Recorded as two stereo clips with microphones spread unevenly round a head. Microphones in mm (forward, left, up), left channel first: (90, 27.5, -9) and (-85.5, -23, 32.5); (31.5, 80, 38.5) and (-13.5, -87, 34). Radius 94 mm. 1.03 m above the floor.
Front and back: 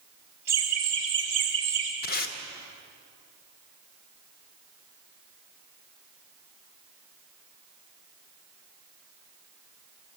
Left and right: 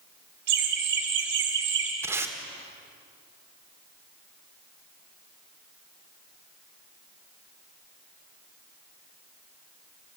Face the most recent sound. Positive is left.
turn(degrees=-30)